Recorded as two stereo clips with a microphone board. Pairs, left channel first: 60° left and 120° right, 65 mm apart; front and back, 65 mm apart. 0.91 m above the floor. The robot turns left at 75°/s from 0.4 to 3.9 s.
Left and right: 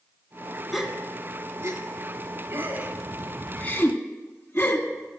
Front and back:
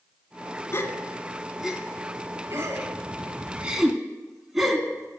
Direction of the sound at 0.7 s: 30° right.